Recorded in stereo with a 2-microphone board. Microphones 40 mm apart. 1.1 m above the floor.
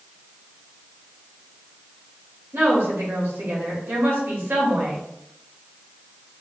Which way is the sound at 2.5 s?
70° right (ahead or behind).